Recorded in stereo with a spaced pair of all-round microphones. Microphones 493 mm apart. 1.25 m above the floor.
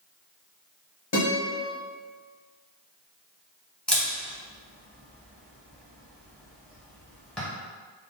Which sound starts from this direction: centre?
A camera shutter, at 3.9 s.